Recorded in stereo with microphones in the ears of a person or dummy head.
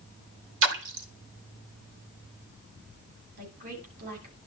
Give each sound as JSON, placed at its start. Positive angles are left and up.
{"t": 0.6, "sound": "a splash", "side_deg": -75, "distance_m": 3.0}
{"t": 3.4, "sound": "a woman speaking", "side_deg": -55, "distance_m": 8.5}